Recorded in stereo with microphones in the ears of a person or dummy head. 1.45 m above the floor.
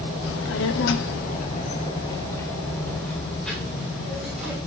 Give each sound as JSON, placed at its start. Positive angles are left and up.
{"t": 0.2, "sound": "a child speaking", "side_deg": 70, "distance_m": 1.9}